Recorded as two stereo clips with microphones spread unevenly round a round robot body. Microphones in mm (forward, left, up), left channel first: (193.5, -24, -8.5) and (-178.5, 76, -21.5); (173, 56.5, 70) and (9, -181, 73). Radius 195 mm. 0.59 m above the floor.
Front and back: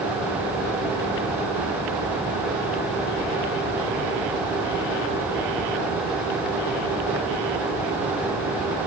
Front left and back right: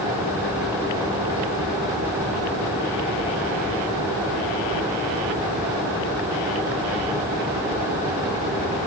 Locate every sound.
Only background noise.